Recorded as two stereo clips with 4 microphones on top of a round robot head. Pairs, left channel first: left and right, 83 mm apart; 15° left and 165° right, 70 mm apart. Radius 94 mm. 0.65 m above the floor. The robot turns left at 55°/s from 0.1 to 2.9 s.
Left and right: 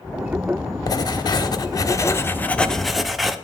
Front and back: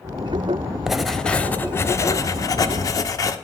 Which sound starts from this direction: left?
Writing, at 0.9 s.